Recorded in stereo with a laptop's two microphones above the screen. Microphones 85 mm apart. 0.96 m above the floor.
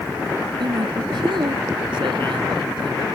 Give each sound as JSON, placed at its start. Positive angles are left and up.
{"t": 0.6, "sound": "a man speaking", "side_deg": -75}